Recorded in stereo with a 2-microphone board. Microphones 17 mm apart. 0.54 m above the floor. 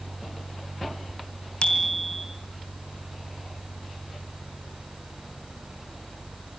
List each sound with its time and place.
1.6 s a bicycle bell: 75° left (ahead or behind), 4 m